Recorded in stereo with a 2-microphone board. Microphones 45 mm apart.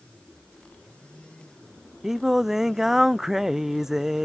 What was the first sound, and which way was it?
Singing, 5° right (ahead or behind).